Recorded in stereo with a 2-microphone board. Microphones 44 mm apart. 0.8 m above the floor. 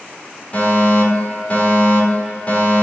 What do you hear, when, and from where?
0.5 s a fire alarm: 35° left (ahead or behind), 3.5 m